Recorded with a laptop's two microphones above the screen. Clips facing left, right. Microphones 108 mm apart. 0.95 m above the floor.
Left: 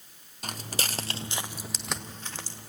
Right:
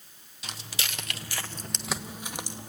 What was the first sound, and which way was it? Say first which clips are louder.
Footsteps: left 4 dB; 50° left (ahead or behind).